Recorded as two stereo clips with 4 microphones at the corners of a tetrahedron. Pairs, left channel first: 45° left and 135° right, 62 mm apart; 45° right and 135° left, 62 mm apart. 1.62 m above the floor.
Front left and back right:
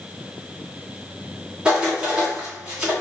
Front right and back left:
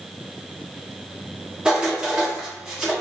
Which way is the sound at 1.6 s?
170° right.